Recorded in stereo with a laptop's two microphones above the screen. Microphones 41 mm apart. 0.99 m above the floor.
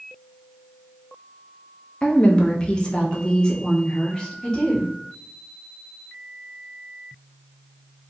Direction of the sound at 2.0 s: 25° left (ahead or behind).